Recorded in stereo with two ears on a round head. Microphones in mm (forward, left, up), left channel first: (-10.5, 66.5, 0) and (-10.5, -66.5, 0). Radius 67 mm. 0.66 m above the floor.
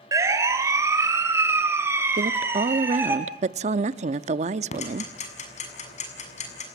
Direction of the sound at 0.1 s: 20° right (ahead or behind).